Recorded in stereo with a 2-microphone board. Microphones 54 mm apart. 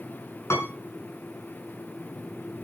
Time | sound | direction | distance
0.5 | a piano | 60° left (ahead or behind) | 6 m